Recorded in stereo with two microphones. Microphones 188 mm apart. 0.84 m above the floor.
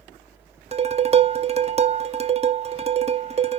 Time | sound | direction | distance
0.7 | dishes clattering | 35° right (ahead or behind) | 0.7 m